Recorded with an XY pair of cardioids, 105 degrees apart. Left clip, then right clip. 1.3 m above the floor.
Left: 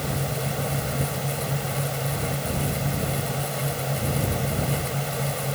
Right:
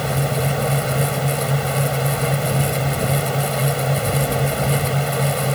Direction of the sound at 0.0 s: 50° right.